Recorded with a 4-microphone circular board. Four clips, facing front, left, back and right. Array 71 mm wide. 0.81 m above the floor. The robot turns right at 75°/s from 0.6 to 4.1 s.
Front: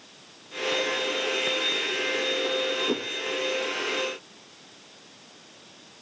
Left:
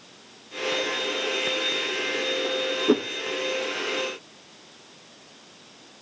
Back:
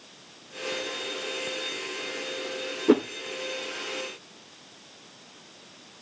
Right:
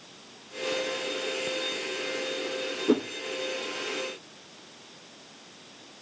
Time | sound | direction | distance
2.9 | a whoosh | 165° left | 0.5 m